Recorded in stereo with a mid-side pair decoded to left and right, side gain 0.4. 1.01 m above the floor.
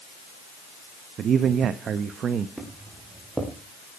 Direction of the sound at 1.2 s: 65° right.